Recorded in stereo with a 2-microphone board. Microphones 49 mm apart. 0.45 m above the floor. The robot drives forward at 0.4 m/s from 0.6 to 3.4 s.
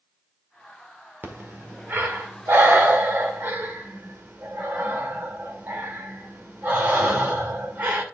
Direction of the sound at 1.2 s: 40° right (ahead or behind).